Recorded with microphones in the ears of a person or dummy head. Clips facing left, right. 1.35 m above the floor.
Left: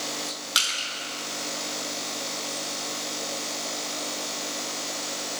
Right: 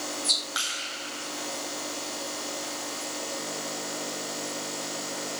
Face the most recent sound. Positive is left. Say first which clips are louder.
# left 2 dB
turn(degrees=40)  # may be behind; listen again after turning